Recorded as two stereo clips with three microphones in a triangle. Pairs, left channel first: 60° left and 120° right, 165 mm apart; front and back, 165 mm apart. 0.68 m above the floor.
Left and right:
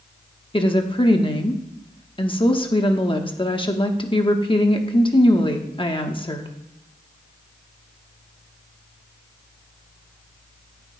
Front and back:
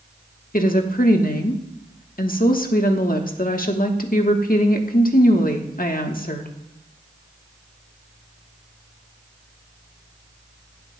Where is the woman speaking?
5° left, 1.1 m.